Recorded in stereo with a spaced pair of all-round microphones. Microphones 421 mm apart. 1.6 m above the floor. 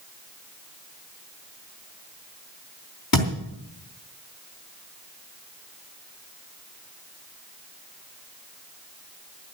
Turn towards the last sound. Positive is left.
turn(degrees=55)  # may be behind; listen again after turning